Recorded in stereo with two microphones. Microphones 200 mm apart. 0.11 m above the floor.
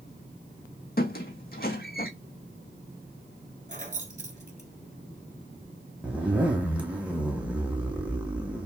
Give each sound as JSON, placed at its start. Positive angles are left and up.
{"t": 1.0, "sound": "a squeak", "side_deg": 50, "distance_m": 0.6}
{"t": 3.7, "sound": "keys jangling", "side_deg": -40, "distance_m": 1.1}
{"t": 6.0, "sound": "a zipper", "side_deg": -5, "distance_m": 0.9}